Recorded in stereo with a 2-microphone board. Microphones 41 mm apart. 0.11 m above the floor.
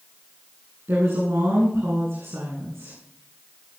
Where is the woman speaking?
75° right (ahead or behind), 9.5 m.